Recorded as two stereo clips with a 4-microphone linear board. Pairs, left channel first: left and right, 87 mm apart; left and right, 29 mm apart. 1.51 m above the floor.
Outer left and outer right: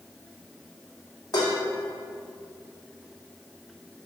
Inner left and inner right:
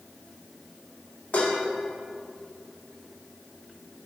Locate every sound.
1.3 s dishes clattering: 50° left (ahead or behind), 1.8 m